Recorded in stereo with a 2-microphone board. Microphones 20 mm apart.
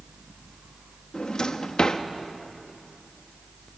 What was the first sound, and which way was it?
A drawer, 45° left (ahead or behind).